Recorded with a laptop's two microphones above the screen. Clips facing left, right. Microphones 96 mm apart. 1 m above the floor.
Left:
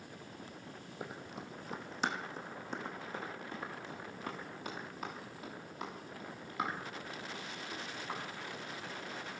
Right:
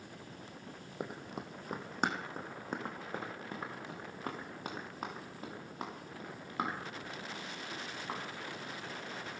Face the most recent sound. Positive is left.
turn(degrees=-35)  # may be behind; listen again after turning